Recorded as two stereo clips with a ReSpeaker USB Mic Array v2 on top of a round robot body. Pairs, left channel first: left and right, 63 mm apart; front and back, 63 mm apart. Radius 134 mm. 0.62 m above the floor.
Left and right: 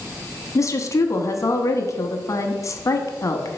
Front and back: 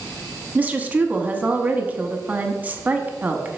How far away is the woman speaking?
About 1.0 m.